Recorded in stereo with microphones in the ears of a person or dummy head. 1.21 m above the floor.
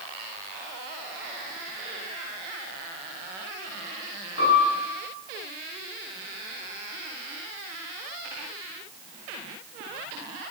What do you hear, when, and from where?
4.4 s a piano: 65° left (ahead or behind), 1.4 m